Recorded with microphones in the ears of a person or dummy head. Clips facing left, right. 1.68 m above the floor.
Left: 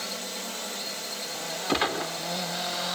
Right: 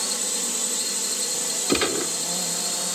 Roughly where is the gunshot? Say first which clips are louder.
Right 5 dB; right.